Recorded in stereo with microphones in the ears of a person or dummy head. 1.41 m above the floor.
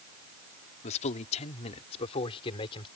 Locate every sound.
0.8 s a man speaking: 40° left (ahead or behind); by 2.9 s 25° left (ahead or behind)